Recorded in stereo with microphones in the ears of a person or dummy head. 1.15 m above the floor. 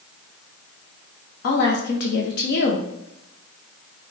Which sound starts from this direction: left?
A woman speaking, at 1.4 s.